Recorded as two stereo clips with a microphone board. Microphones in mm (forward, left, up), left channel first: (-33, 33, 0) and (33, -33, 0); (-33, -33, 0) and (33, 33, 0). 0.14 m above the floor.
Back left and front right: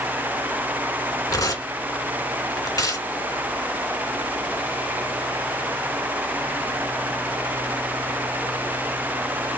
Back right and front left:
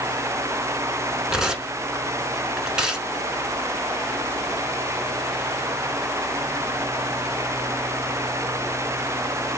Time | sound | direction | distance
1.3 | tearing paper | 125° left | 0.9 m